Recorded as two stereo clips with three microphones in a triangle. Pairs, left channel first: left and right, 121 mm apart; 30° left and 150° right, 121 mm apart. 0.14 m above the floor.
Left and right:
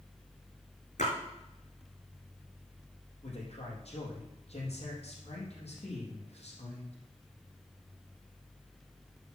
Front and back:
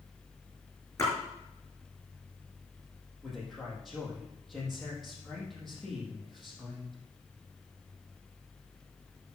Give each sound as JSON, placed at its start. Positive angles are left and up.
{"t": 1.0, "sound": "a splash", "azimuth_deg": 95, "distance_m": 4.5}
{"t": 3.2, "sound": "a man speaking", "azimuth_deg": 120, "distance_m": 4.0}